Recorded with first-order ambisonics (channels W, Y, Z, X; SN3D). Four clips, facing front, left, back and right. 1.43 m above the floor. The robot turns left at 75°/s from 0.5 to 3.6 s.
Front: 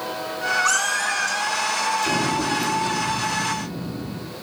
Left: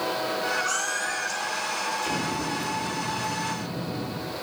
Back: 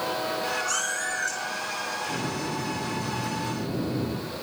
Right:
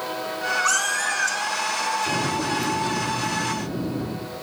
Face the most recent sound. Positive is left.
turn(degrees=-125)